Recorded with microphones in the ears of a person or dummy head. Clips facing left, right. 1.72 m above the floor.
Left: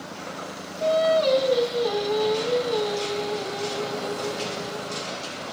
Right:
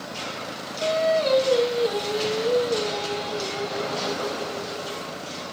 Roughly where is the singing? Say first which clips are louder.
Left 2 dB; left.